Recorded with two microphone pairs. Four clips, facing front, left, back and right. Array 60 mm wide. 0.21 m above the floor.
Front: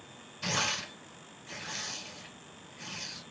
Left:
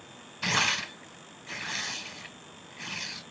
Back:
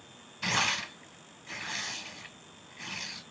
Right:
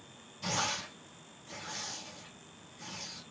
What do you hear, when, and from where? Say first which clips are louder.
0.4 s tearing paper: left 7 dB, back 3 dB; 115° left, 1.0 m